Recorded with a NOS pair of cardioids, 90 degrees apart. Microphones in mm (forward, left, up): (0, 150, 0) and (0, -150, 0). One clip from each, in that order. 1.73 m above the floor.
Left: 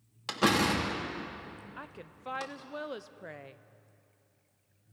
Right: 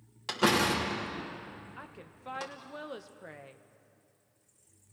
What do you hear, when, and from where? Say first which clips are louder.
0.3 s a door slam: even; 5° left, 3 m
1.8 s a woman speaking: left 2 dB; 15° left, 0.9 m